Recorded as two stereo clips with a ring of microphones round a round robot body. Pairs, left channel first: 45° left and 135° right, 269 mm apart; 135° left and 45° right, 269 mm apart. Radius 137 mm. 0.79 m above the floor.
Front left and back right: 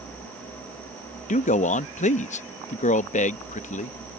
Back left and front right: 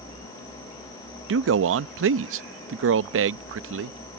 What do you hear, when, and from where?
1.3 s a man speaking: 15° right